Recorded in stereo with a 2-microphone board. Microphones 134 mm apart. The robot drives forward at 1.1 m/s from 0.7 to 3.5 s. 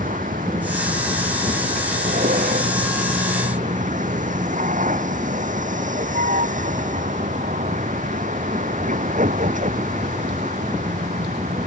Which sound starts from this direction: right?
A vehicle, at 0.0 s.